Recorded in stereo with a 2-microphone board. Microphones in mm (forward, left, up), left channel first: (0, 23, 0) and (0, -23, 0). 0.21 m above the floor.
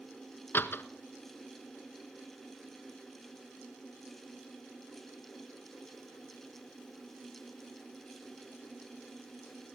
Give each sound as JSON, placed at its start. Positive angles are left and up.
{"t": 0.5, "sound": "a door slam", "side_deg": 50, "distance_m": 1.9}